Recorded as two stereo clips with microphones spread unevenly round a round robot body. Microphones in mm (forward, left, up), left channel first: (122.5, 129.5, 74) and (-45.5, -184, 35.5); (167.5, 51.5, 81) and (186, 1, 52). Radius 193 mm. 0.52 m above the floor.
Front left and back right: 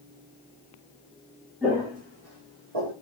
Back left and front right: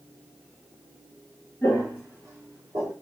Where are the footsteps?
155° left, 1.4 m; by 2.9 s 140° right, 1.2 m.